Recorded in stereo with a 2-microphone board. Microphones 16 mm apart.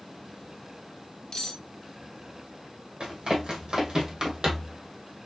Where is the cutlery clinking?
35° left (ahead or behind), 1.6 m.